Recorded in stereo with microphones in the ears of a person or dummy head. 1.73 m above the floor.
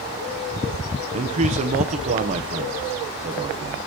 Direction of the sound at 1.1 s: 40° right (ahead or behind).